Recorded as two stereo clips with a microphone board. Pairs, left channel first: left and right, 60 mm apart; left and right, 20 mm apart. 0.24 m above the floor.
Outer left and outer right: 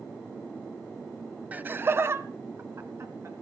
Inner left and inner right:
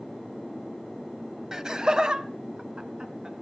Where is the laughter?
25° right (ahead or behind), 1.0 m; by 3.3 s 50° right (ahead or behind), 3 m.